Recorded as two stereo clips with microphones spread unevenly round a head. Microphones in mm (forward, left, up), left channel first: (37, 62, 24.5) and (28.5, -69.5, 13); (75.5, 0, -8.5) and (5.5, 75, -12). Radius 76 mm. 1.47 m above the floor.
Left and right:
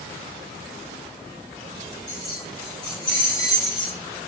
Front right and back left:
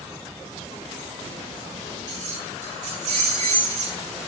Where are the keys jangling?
155° left, 4.5 m; by 4.0 s 140° left, 4 m.